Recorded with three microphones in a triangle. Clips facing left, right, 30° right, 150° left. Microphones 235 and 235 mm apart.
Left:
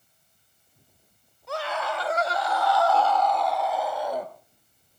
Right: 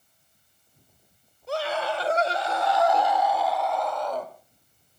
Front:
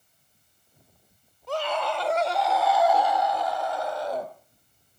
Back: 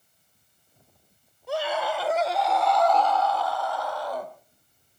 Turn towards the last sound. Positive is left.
turn(degrees=20)